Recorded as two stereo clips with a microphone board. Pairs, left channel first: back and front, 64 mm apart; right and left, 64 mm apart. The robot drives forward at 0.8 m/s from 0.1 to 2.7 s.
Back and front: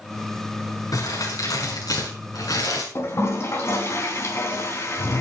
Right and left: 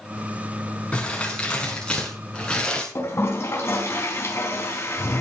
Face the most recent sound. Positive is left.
turn(degrees=-135)